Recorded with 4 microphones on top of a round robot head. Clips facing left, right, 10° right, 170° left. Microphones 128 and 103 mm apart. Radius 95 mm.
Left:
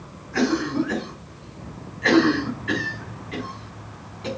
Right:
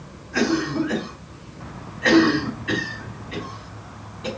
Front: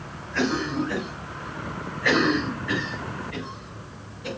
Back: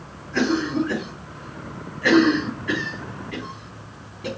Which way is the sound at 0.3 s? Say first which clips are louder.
Even, back 4 dB; 165° right.